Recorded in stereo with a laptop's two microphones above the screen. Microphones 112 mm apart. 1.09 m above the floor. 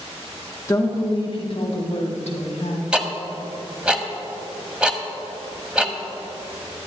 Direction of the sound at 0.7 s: 30° left (ahead or behind).